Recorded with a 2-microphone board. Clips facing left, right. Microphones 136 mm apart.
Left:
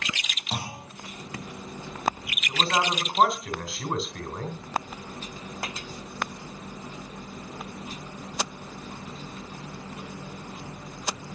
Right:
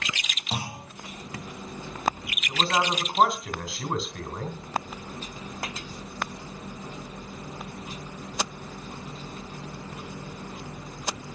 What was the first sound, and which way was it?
A clunk, 5° right (ahead or behind).